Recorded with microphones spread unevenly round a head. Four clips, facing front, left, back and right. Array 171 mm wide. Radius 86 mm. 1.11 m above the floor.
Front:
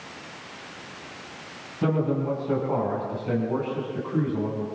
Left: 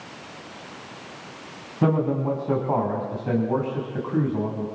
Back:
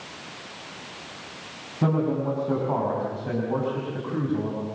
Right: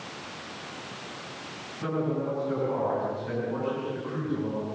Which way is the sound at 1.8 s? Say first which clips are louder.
Left 7 dB, back 1 dB; 105° left.